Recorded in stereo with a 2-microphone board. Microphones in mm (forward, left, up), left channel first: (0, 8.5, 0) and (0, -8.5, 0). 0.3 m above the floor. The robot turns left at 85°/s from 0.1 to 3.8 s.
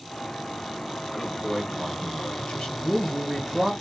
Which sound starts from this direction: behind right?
A man speaking, at 1.1 s.